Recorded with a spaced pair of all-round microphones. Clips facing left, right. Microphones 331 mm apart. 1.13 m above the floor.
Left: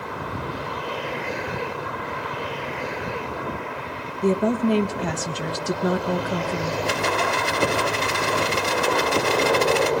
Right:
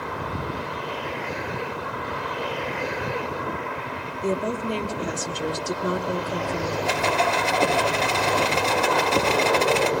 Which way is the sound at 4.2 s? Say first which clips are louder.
Left 6 dB; 70° left (ahead or behind).